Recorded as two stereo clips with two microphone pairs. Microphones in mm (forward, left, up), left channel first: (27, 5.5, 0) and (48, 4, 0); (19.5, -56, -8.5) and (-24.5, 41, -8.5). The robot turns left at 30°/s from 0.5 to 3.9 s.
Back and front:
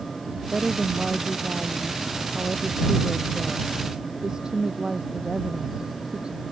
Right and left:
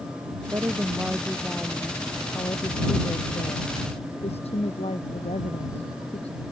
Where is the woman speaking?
50° left; by 6.4 s 50° right.